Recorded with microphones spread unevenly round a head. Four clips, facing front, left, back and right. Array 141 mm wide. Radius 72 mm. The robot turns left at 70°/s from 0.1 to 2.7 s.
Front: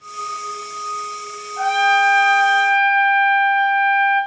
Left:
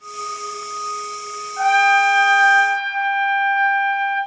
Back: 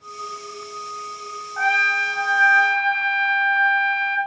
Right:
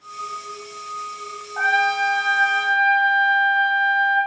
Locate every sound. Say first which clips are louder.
1.6 s a trumpet: left 5 dB, front 6 dB; 105° right, 3 m; by 4.2 s 175° left, 3 m